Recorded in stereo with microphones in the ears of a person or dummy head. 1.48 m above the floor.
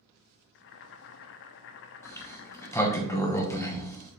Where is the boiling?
60° left (ahead or behind), 0.6 m.